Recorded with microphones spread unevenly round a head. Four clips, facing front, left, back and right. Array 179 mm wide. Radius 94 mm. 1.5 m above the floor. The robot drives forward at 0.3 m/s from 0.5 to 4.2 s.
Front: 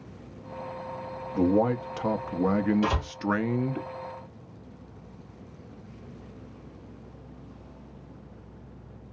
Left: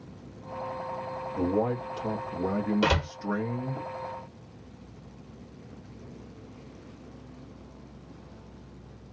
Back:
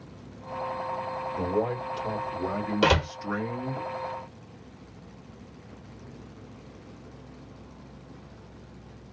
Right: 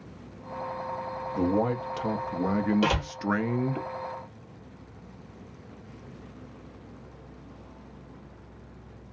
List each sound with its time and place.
1.4 s a man speaking: 40° right, 1.1 m; by 3.8 s 85° right, 0.7 m
2.8 s a door slam: straight behind, 1.3 m